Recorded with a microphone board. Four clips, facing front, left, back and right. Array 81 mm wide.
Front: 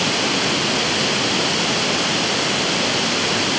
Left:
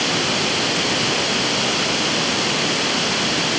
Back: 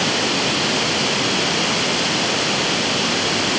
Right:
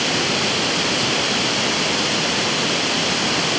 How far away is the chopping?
I don't hear chopping.